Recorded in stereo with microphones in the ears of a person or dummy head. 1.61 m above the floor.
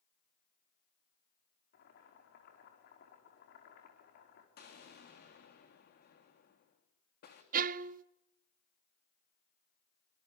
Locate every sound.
1.7 s boiling: 50° left (ahead or behind), 5 m
4.6 s an explosion: 45° left (ahead or behind), 3.5 m
7.5 s a violin: 40° right (ahead or behind), 0.6 m